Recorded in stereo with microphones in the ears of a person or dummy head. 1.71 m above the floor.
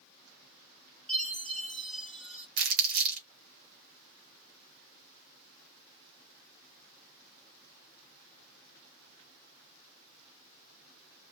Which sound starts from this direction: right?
Crumpling, at 2.6 s.